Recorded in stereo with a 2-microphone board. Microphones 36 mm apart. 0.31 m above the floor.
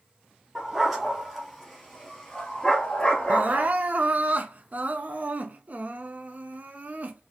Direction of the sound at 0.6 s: 5° right (ahead or behind).